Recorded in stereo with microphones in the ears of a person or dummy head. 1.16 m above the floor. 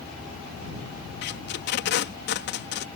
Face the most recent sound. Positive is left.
turn(degrees=55)  # may be behind; listen again after turning